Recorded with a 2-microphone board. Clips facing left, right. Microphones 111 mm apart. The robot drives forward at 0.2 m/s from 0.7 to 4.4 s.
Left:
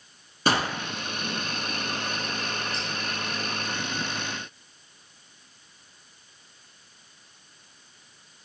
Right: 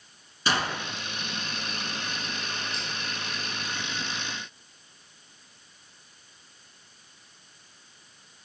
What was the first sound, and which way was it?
A gunshot, 45° left (ahead or behind).